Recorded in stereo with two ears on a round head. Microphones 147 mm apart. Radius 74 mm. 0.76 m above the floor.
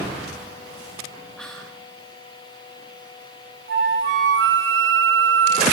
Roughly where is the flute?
Right.